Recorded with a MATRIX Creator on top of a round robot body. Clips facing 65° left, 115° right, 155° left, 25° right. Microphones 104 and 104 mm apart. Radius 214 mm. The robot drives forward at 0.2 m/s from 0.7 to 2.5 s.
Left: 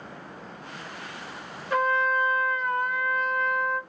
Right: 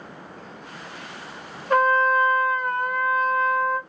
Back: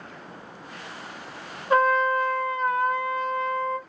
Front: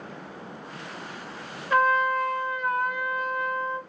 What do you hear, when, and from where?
1.7 s a trumpet: 150° right, 1.0 m; by 3.8 s 155° right, 1.2 m